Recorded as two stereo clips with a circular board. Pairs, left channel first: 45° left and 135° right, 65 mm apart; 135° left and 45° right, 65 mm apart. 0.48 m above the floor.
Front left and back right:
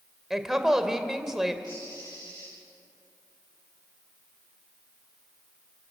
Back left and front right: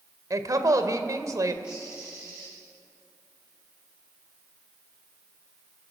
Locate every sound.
0.3 s a woman speaking: 50° right, 1.9 m
1.6 s a bird: 25° left, 9.5 m